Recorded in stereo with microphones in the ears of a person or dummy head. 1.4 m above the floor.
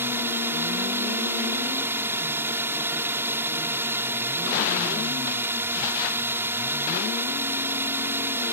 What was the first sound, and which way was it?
A drone, 10° right (ahead or behind).